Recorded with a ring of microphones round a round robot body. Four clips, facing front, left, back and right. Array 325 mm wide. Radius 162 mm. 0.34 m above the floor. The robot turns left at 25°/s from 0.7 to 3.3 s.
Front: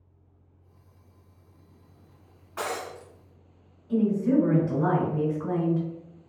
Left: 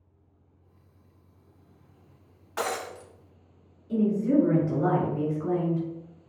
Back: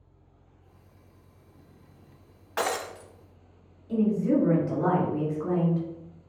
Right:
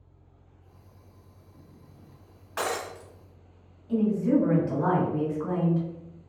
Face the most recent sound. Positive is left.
turn(degrees=-120)